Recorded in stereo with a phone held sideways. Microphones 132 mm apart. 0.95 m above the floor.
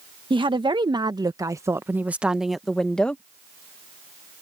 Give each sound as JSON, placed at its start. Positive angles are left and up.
{"t": 0.3, "sound": "a woman speaking", "side_deg": -40}